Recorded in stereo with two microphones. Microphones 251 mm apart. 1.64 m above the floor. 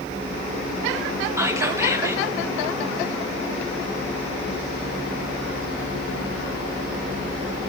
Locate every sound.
1.4 s whispering: 10° right (ahead or behind), 1.2 m